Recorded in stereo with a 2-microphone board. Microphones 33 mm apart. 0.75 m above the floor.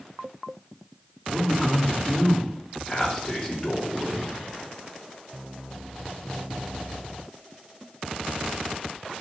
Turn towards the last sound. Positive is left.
turn(degrees=20)  # may be behind; listen again after turning